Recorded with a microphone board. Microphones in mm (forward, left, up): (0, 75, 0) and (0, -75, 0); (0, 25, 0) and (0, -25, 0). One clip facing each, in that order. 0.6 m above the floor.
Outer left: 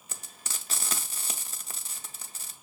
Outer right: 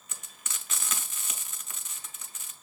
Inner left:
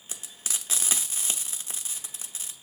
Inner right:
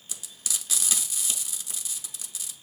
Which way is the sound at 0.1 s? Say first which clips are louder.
Outer left 2 dB, even; 35° left (ahead or behind).